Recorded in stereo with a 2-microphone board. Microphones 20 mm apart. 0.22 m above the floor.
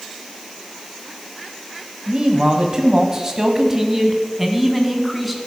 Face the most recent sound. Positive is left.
turn(degrees=0)  # may be behind; listen again after turning